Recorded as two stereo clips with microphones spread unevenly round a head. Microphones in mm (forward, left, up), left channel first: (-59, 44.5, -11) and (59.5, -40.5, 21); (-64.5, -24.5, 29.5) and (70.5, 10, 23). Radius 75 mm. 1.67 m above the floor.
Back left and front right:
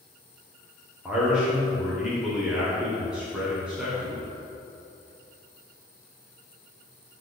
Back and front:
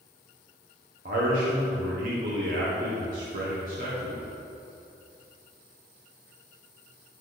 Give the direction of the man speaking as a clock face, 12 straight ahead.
10 o'clock.